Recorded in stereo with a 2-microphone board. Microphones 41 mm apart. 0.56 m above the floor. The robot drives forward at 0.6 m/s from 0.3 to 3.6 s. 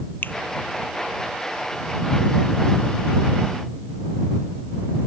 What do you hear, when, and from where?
0.2 s a finger snap: 55° left (ahead or behind)